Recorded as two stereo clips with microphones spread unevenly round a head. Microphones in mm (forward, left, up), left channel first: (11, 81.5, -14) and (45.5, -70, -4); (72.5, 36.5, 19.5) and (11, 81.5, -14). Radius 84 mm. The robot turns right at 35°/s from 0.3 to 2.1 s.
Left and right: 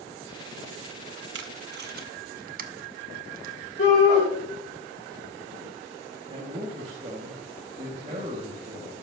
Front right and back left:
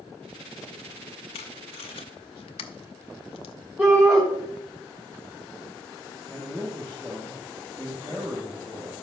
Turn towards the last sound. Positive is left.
turn(degrees=-135)